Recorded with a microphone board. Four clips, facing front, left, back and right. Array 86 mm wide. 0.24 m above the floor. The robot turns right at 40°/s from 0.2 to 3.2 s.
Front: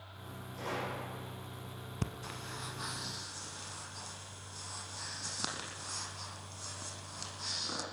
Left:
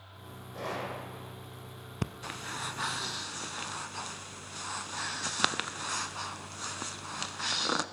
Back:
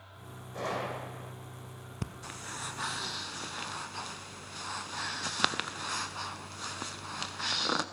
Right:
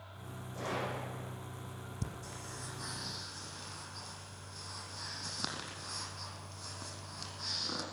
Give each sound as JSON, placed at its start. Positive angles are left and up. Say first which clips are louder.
{"t": 0.5, "sound": "a gunshot", "louder": "left 1 dB, back 4 dB", "azimuth_deg": 160, "distance_m": 6.0}
{"t": 2.0, "sound": "breathing", "louder": "left 9 dB, even", "azimuth_deg": 85, "distance_m": 0.8}